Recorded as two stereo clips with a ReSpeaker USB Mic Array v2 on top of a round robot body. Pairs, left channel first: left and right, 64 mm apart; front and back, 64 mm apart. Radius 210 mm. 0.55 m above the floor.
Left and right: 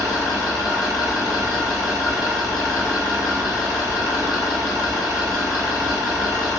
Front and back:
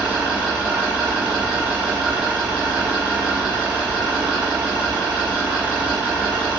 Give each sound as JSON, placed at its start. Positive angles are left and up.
{"t": 0.0, "sound": "an engine running", "azimuth_deg": 105, "distance_m": 1.7}